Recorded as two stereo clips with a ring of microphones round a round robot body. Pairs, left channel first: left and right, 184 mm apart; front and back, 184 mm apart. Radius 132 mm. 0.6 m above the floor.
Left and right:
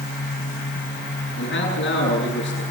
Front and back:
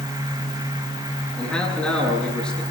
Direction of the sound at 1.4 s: 85° left.